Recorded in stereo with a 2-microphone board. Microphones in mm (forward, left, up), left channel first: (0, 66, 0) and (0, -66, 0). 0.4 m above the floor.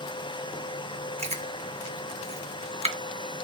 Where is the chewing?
60° right (ahead or behind), 0.8 m.